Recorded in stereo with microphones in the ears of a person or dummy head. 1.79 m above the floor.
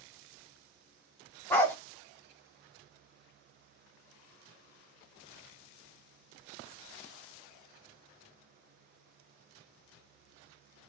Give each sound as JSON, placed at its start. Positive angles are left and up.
{"t": 1.5, "sound": "a dog barking", "side_deg": 15, "distance_m": 1.4}